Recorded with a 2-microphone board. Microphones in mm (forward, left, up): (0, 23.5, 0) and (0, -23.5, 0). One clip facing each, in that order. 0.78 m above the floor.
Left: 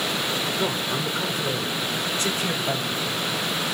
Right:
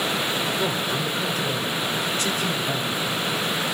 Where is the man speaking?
10° left (ahead or behind), 2 m; by 3.1 s 40° left (ahead or behind), 3.5 m.